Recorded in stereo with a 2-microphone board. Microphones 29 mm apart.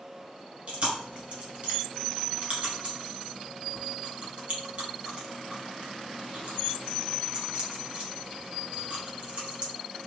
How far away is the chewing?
About 1.9 m.